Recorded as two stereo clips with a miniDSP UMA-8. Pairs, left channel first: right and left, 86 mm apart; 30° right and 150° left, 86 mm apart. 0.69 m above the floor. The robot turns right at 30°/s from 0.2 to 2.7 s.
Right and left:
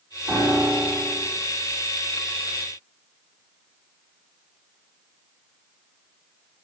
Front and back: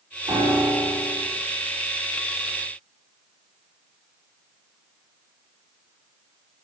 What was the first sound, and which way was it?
A piano, 160° left.